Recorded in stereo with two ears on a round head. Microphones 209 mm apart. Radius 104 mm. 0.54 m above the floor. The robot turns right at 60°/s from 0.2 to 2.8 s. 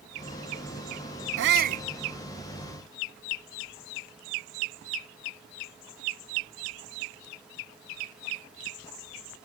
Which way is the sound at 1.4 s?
55° right (ahead or behind).